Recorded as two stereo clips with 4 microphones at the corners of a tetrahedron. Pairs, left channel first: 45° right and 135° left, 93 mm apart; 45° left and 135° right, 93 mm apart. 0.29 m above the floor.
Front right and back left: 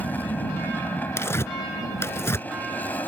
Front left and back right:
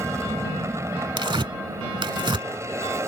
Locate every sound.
0.0 s an aircraft: 105° right
1.2 s tearing paper: 105° right